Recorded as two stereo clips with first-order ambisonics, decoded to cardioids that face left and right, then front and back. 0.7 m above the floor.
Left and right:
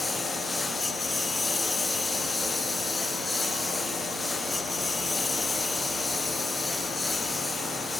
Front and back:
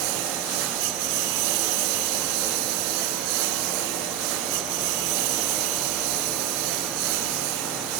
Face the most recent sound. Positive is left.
turn(degrees=170)